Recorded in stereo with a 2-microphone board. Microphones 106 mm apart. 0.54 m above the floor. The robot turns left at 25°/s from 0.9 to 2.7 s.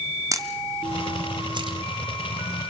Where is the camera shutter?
30° right (ahead or behind), 1.7 m; by 1.8 s 50° right (ahead or behind), 1.7 m.